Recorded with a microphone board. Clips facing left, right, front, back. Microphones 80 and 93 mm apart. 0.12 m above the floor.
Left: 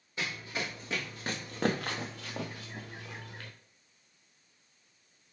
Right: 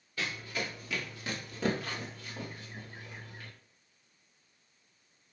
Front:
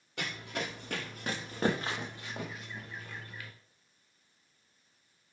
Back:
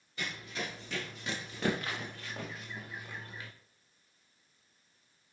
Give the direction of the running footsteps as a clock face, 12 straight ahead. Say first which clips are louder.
Even, front 2 dB; 11 o'clock.